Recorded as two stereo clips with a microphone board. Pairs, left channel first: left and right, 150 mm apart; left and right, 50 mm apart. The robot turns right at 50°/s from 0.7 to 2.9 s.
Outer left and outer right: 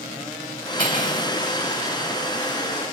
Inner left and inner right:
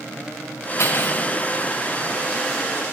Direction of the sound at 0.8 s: 85° left.